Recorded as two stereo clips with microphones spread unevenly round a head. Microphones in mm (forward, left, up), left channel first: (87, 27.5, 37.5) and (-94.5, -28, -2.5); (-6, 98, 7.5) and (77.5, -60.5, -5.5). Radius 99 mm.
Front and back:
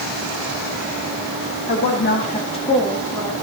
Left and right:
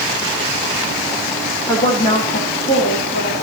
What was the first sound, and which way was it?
A woman speaking, 40° left.